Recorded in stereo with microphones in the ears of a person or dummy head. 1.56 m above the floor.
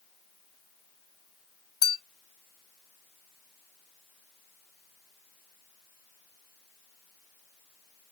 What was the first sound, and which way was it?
A clink, 20° left (ahead or behind).